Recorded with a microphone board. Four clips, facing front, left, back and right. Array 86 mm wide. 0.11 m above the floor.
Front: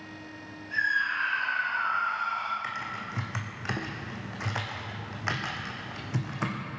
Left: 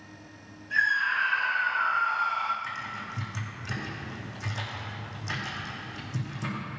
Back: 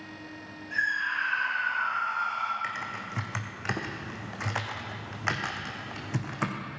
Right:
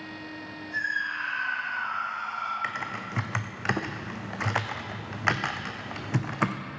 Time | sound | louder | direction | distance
0.7 | a scream | left 5 dB, front 1 dB | 90° left | 3 m
2.6 | typing on a keyboard | right 3 dB, even | 95° right | 1.4 m